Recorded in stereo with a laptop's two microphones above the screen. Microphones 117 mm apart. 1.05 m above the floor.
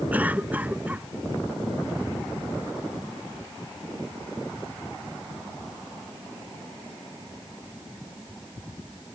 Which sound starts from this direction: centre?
A cough, at 0.1 s.